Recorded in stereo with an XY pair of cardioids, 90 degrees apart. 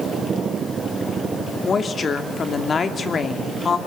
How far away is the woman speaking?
About 2.5 m.